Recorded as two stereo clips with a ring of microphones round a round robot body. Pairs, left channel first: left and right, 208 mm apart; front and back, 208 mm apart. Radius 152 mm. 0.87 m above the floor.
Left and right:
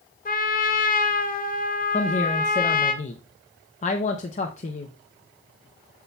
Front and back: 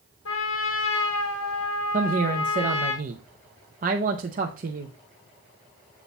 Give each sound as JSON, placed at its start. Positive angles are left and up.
{"t": 0.2, "sound": "a trumpet", "azimuth_deg": 45, "distance_m": 1.1}
{"t": 1.9, "sound": "a woman speaking", "azimuth_deg": 140, "distance_m": 0.5}